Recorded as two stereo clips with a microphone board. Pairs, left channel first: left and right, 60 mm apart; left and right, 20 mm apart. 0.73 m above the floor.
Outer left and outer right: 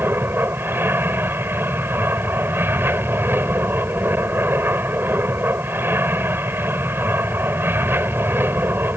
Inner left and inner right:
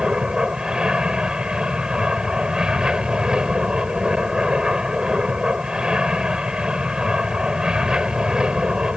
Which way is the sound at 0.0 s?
35° right (ahead or behind).